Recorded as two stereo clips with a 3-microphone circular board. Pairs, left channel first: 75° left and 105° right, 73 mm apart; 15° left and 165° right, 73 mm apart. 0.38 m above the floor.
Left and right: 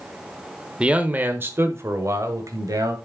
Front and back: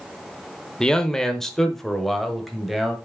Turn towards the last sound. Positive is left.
turn(degrees=-75)